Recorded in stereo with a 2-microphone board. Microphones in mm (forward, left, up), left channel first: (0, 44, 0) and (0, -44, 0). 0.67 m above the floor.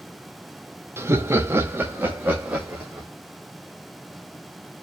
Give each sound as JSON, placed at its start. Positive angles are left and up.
{"t": 1.0, "sound": "laughter", "side_deg": -30, "distance_m": 0.8}